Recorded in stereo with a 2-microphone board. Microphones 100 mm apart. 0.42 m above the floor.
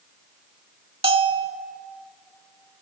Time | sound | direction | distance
1.0 | a bell | 55° right (ahead or behind) | 0.7 m